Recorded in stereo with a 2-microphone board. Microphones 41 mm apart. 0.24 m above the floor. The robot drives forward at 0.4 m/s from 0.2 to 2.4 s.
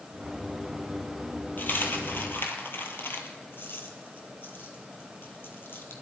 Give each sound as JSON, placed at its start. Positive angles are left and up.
{"t": 1.6, "sound": "a dropped coin", "side_deg": 55, "distance_m": 1.9}